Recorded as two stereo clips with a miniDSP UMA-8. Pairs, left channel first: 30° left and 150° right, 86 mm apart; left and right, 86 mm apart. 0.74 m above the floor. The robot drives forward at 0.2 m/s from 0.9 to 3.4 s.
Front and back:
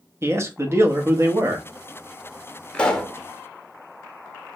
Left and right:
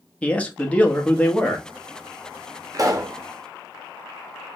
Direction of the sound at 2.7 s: 45° right.